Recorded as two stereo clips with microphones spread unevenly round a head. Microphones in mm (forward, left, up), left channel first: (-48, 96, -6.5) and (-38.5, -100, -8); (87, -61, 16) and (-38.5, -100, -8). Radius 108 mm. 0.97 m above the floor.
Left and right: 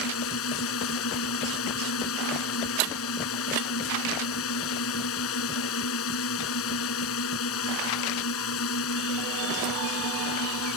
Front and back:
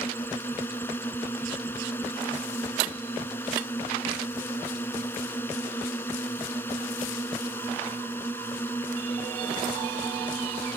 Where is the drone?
100° left.